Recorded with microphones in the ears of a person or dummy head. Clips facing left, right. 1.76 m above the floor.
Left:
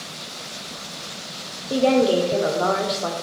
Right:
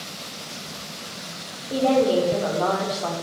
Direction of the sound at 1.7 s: 30° left (ahead or behind).